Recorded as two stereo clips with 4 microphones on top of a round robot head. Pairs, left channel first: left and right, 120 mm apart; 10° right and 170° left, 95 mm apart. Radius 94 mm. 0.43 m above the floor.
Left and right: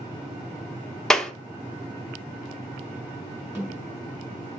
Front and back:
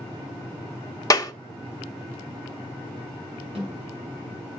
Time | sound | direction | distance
1.1 | a clap | 5° left | 0.8 m
3.5 | a snare drum | 160° right | 5 m